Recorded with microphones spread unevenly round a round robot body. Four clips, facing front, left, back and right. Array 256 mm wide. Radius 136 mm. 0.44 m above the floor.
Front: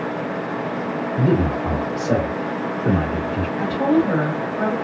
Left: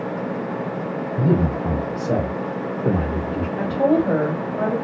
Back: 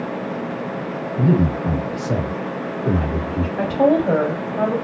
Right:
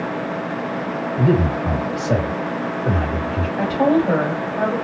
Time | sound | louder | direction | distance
1.2 | a man speaking | right 2 dB, back 1 dB | 15° left | 2 m
3.6 | a woman speaking | right 1 dB, back 2 dB | 160° left | 1.8 m